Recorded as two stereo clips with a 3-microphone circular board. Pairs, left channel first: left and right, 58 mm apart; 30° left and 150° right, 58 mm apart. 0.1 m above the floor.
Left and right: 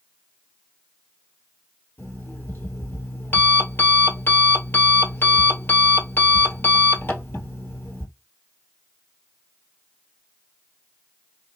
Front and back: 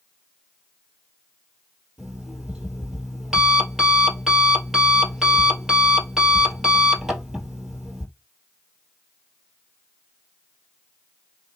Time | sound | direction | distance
2.0 | an alarm clock | 125° left | 1.6 m